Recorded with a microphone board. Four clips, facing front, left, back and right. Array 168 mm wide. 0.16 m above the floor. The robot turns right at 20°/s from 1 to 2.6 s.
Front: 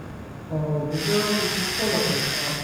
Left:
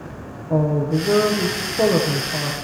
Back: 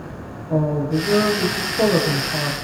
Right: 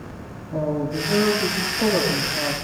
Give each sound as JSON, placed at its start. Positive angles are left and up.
{"t": 0.5, "sound": "a woman speaking", "azimuth_deg": 110, "distance_m": 8.0}